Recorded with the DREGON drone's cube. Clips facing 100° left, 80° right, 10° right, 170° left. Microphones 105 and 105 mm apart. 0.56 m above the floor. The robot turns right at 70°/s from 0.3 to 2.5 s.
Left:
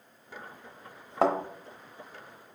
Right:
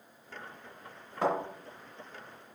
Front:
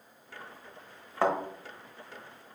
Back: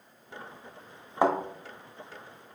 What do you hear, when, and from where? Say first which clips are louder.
1.2 s a thud: left 4 dB, back 3 dB; 95° left, 0.9 m; by 1.4 s 105° left, 0.9 m